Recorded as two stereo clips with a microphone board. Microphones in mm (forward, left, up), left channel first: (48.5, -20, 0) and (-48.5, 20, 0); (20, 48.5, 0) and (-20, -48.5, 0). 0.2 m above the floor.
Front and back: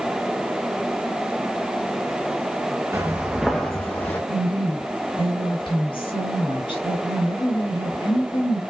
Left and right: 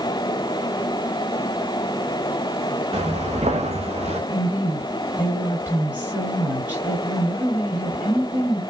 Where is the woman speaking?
40° right, 3 m.